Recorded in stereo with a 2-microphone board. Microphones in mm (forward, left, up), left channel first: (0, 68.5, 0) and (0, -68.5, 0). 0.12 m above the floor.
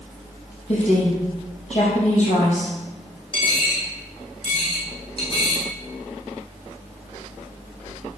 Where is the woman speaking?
55° left (ahead or behind), 3.5 m.